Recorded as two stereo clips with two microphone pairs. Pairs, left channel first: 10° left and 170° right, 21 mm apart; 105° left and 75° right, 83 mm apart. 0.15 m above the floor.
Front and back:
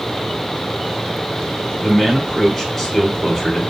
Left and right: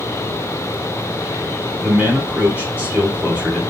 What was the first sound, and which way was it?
A man speaking, 50° right.